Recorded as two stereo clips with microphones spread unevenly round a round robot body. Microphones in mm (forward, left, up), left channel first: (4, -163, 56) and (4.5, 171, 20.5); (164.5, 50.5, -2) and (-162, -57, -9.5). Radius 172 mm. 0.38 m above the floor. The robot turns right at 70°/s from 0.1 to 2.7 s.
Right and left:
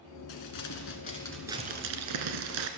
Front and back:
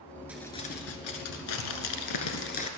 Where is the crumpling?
75° right, 1.3 m; by 2.7 s 90° left, 1.3 m.